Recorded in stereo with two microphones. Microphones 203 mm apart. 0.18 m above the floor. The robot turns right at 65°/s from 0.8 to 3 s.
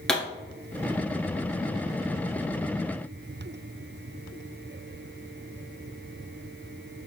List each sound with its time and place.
0.1 s a pop: 5° left (ahead or behind), 1.5 m